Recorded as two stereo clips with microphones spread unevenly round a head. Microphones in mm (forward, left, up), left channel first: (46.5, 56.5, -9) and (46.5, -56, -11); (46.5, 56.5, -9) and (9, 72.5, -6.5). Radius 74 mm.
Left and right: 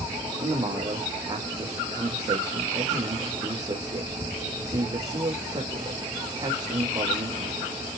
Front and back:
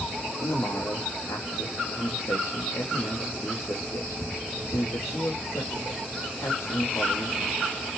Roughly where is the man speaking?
Ahead right.